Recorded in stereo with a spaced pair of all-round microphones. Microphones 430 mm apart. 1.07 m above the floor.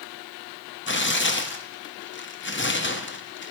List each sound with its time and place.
0.9 s tearing paper: 30° left (ahead or behind), 0.5 m